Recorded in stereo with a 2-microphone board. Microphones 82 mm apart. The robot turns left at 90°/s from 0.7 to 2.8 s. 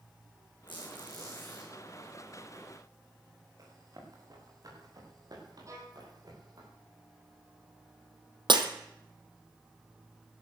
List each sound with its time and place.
0.7 s a squeak: 95° left, 6 m; by 1.7 s 5° left, 6 m
3.6 s running footsteps: 45° right (ahead or behind), 6 m; by 6.7 s 55° right (ahead or behind), 7.5 m
5.7 s a violin: 40° right (ahead or behind), 4 m
8.5 s breaking glass: 75° right (ahead or behind), 1.5 m